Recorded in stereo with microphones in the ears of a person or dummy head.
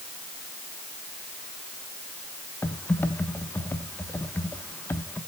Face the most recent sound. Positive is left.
turn(degrees=10)  # may be behind; listen again after turning